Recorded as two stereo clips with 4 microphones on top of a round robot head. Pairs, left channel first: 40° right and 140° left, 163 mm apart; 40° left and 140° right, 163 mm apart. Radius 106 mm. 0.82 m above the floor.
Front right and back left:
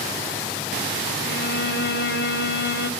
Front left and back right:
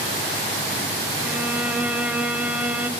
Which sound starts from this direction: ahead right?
A violin, at 1.2 s.